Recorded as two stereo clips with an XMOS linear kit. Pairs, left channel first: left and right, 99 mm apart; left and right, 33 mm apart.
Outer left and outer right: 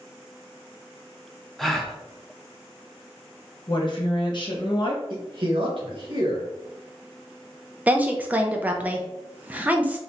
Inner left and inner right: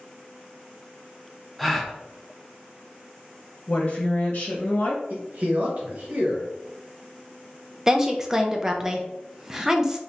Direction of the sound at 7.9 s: 15° right (ahead or behind).